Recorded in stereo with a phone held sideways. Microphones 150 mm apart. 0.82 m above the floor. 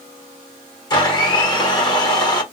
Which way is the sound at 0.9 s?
25° left (ahead or behind).